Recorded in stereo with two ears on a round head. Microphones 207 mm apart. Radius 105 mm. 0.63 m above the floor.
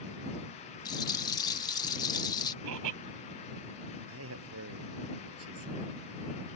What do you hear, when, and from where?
0.8 s a rattle: 15° left (ahead or behind)
2.6 s laughter: 80° right
4.1 s a man speaking: 70° right (ahead or behind)